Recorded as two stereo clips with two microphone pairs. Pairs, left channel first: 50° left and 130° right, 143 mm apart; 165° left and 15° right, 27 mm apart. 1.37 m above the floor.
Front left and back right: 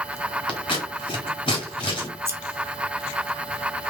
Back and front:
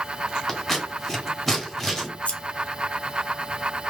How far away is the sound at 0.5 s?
About 1.7 m.